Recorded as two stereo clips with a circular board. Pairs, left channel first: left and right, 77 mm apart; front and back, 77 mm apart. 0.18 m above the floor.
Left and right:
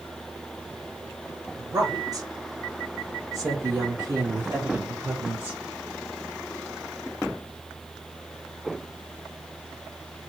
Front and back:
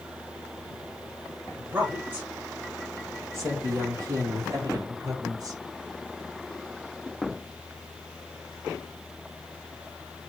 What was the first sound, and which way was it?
A woman speaking, 115° right.